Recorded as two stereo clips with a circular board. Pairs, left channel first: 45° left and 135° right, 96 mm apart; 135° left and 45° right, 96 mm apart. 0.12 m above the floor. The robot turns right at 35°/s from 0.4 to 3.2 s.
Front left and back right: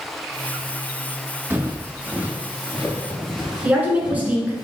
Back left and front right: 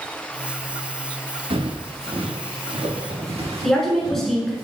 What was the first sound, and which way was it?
Footsteps, 65° right.